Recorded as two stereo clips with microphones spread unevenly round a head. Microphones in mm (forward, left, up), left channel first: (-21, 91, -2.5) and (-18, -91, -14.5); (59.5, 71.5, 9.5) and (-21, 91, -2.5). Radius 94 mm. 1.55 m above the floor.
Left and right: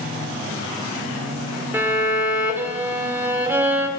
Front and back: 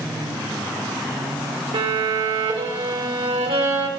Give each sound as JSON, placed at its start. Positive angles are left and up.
{"t": 1.7, "sound": "a violin", "azimuth_deg": -165, "distance_m": 1.7}